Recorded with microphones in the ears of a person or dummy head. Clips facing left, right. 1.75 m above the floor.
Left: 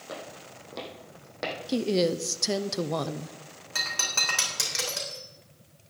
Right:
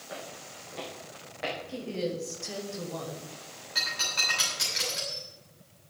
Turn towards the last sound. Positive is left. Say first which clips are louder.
# left 2 dB
turn(degrees=60)  # may be behind; listen again after turning